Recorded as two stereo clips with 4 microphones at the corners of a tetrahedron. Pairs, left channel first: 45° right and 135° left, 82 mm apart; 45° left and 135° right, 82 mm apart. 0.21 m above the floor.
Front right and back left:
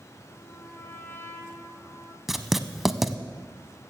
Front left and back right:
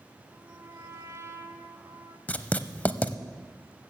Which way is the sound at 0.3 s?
100° right.